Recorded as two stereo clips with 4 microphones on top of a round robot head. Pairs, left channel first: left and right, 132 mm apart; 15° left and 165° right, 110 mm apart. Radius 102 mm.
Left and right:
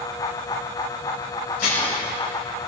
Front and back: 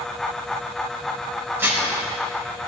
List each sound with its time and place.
1.6 s dishes clattering: 125° left, 4.5 m